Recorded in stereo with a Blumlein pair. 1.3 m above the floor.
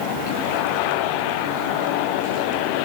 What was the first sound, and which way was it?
Only background noise.